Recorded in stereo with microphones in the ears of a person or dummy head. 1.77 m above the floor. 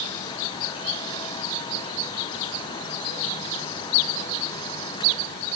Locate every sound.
Only background noise.